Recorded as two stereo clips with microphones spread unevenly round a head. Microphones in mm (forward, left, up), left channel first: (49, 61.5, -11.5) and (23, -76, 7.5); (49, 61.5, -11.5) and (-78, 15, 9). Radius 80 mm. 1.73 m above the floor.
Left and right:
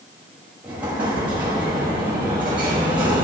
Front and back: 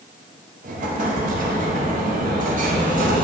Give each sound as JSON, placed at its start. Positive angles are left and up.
{"t": 0.6, "sound": "an explosion", "azimuth_deg": 175, "distance_m": 1.4}